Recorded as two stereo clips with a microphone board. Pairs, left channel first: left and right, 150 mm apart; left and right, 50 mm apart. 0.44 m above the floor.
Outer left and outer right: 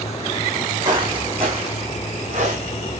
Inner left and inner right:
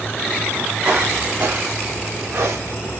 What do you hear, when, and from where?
0.8 s footsteps: 30° right (ahead or behind), 3 m; by 3.0 s 60° right (ahead or behind), 3.5 m